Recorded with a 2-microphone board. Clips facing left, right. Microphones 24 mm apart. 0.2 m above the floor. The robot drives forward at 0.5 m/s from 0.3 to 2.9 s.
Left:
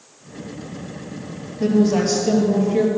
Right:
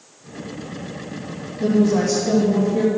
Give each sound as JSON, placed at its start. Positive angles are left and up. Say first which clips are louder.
{"t": 1.6, "sound": "a woman speaking", "louder": "even", "side_deg": 60, "distance_m": 4.5}